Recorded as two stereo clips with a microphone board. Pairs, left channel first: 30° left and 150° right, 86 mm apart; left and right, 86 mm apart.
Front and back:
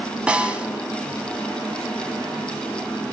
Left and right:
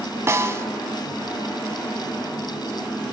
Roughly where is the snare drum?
Right.